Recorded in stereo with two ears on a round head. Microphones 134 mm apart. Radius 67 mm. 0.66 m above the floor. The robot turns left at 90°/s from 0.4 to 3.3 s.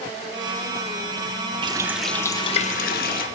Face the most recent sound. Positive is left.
turn(degrees=65)